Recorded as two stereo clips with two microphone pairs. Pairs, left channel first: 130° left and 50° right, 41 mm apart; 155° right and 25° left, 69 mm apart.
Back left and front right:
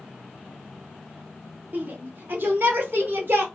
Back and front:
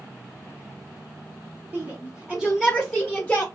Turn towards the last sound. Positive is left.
turn(degrees=-70)